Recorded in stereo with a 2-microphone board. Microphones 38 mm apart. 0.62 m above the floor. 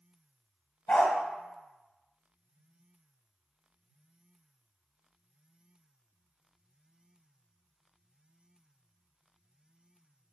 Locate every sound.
0.9 s a dog barking: 35° left (ahead or behind), 0.7 m